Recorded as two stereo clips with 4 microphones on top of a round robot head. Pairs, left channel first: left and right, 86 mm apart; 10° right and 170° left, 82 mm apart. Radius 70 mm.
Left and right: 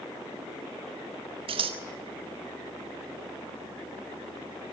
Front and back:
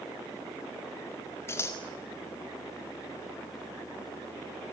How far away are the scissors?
About 1.9 m.